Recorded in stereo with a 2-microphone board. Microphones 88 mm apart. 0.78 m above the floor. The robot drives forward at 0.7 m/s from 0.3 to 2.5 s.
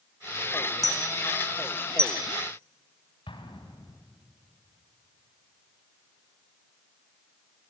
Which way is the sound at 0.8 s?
40° left (ahead or behind).